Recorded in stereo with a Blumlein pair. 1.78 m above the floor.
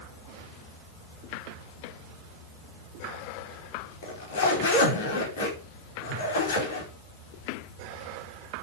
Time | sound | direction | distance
4.0 | a zipper | 60° left | 5 m